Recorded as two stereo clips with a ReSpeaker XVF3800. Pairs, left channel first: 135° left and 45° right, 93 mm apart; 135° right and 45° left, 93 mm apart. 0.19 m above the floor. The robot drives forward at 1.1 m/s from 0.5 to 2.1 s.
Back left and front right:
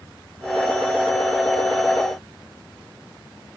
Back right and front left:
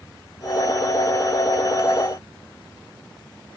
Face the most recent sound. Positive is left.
No sound to turn to.